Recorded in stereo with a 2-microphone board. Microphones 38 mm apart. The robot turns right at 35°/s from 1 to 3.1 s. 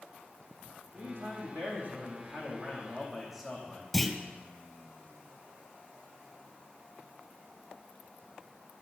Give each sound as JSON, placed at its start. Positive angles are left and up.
{"t": 0.9, "sound": "a man speaking", "azimuth_deg": -85, "distance_m": 5.5}
{"t": 3.9, "sound": "a clunk", "side_deg": 0, "distance_m": 1.9}